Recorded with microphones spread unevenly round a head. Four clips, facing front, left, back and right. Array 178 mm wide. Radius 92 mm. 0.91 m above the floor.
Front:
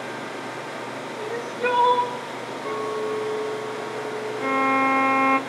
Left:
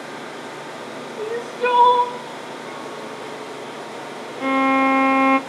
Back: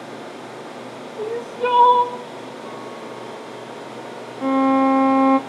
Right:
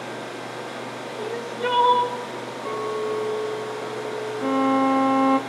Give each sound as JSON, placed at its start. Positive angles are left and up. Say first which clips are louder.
{"t": 1.2, "sound": "crying", "louder": "left 5 dB, back 4 dB", "azimuth_deg": 160, "distance_m": 0.9}
{"t": 2.6, "sound": "a clink", "louder": "right 6 dB, front 6 dB", "azimuth_deg": -20, "distance_m": 2.5}
{"t": 4.4, "sound": "a violin", "louder": "left 3 dB, back 6 dB", "azimuth_deg": 160, "distance_m": 0.6}